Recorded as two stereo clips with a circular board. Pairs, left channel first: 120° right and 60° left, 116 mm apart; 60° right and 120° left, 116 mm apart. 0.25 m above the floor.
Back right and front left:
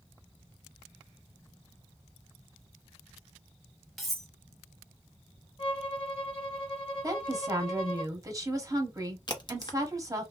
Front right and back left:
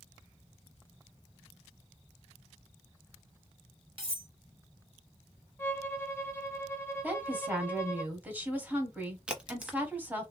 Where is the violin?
120° right, 1.2 m.